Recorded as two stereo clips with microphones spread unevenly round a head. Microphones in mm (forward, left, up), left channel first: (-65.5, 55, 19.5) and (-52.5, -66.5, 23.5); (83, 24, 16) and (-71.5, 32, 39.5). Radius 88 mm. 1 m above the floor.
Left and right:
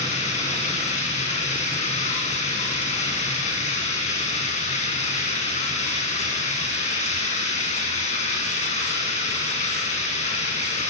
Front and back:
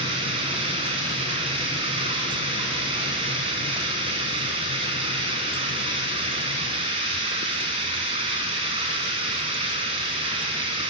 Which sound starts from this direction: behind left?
Running water, at 0.0 s.